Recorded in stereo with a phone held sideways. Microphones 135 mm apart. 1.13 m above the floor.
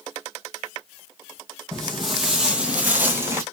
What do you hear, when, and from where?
1.7 s footsteps: 5° left (ahead or behind), 1.8 m; by 3.4 s 20° right (ahead or behind), 1.3 m